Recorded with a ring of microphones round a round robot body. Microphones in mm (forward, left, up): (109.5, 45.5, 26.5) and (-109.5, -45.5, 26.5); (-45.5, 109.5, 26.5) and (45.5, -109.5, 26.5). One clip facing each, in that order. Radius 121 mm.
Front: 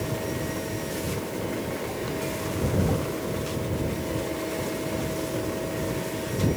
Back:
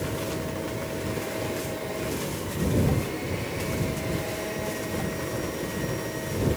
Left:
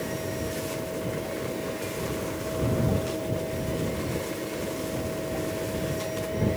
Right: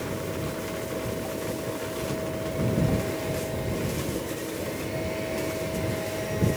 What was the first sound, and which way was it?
Only background noise.